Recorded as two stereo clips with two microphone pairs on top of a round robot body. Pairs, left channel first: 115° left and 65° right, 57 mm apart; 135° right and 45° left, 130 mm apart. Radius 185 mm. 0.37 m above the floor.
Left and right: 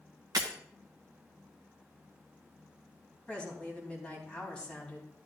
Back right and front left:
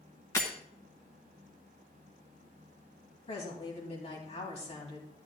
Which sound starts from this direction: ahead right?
Breaking glass, at 0.3 s.